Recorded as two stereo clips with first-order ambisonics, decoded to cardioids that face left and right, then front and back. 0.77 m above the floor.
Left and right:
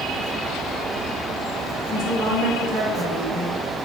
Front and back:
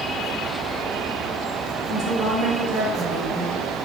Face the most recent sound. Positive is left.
turn(degrees=-140)